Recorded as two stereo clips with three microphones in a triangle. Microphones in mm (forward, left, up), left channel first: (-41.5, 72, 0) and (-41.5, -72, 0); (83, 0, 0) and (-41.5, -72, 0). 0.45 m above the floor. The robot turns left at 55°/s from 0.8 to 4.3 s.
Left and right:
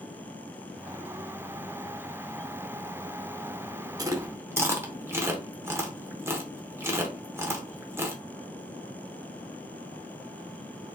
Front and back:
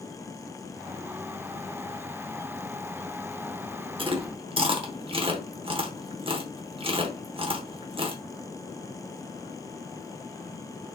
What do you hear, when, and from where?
4.0 s chewing: 135° right, 0.8 m; by 8.2 s 155° right, 0.8 m